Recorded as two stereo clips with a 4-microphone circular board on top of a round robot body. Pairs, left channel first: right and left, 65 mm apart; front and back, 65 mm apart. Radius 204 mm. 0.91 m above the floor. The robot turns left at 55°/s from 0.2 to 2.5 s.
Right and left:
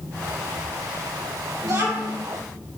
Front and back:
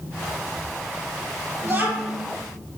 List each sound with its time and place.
1.6 s a child speaking: 135° left, 1.9 m; by 2.2 s 105° left, 1.9 m